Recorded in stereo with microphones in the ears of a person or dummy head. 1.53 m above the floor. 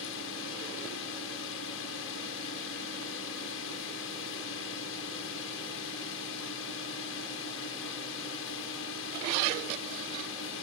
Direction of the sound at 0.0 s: 75° left (ahead or behind).